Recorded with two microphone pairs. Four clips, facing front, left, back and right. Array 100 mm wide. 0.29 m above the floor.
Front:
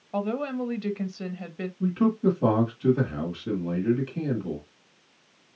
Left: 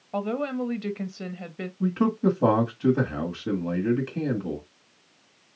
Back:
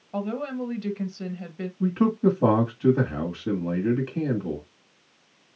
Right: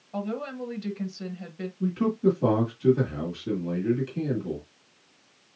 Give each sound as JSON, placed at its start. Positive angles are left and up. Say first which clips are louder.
{"t": 0.1, "sound": "a woman speaking", "louder": "left 4 dB, front 1 dB", "azimuth_deg": 65, "distance_m": 1.1}
{"t": 1.8, "sound": "a man speaking", "louder": "left 1 dB, back 2 dB", "azimuth_deg": 125, "distance_m": 1.7}